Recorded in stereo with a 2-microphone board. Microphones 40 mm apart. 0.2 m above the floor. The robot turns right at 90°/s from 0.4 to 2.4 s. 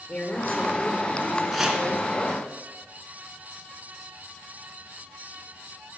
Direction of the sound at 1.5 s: Centre (ahead or behind).